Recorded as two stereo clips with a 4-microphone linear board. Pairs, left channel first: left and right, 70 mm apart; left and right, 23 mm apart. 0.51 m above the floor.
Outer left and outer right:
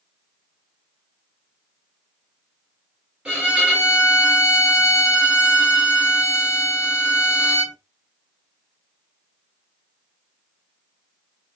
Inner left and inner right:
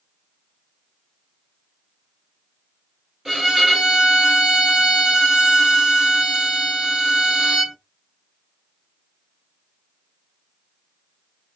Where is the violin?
15° right (ahead or behind), 1.3 m.